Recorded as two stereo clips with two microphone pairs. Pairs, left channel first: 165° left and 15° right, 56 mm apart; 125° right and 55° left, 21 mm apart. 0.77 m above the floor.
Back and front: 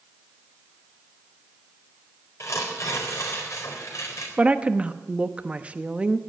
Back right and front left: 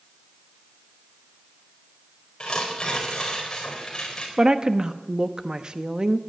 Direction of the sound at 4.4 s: 40° left.